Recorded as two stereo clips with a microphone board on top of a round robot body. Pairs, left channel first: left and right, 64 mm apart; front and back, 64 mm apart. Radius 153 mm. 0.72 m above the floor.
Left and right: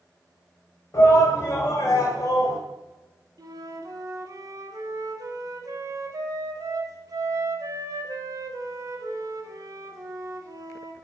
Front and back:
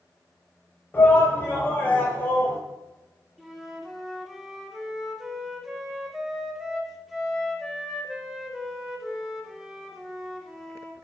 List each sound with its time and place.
0.9 s a shout: 55° left, 3.5 m; by 2.6 s 60° left, 3 m
3.4 s a flute: 95° right, 1.6 m